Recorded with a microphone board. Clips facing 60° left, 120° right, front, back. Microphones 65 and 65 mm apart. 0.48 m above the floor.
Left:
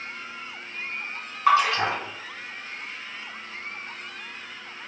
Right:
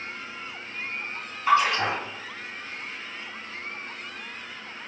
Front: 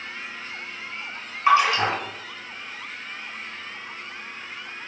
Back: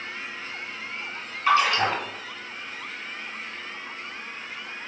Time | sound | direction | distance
1.5 | a splash | 70° left | 1.5 m